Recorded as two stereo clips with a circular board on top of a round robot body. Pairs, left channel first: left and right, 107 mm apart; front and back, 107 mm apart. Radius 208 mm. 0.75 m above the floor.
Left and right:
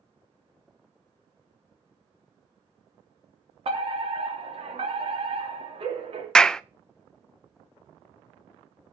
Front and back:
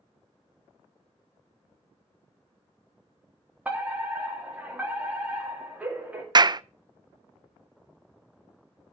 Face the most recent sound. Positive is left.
turn(degrees=170)